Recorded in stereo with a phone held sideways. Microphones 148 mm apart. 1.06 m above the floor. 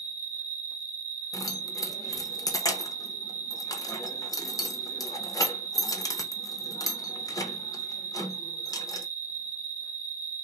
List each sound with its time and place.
0.0 s an insect: 55° left (ahead or behind), 1.3 m
1.3 s keys jangling: 25° left (ahead or behind), 0.6 m